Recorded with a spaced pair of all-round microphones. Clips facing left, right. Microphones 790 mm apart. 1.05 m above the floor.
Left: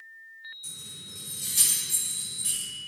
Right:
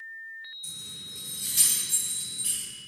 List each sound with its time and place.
0.6 s keys jangling: 10° right (ahead or behind), 2.5 m